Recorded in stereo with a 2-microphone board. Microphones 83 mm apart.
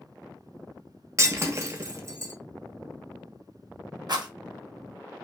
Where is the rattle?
55° right (ahead or behind), 0.7 m.